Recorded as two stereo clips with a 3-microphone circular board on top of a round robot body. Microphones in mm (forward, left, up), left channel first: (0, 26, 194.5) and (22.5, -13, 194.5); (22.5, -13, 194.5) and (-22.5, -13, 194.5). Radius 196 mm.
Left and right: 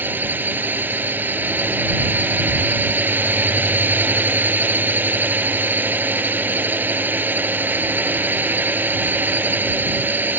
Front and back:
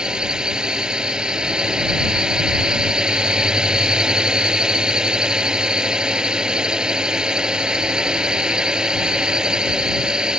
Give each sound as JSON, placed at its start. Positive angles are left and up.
{"t": 0.0, "sound": "a drone", "azimuth_deg": -105}